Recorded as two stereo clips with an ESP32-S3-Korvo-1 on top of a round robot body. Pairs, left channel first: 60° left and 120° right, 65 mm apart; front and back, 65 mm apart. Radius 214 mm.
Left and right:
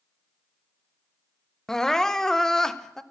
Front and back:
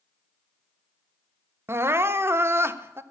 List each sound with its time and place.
1.7 s crying: 140° left, 1.0 m